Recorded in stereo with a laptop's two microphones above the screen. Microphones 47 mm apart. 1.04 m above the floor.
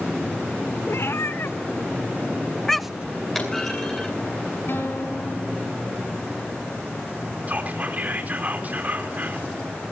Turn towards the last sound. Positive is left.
turn(degrees=-40)  # may be behind; listen again after turning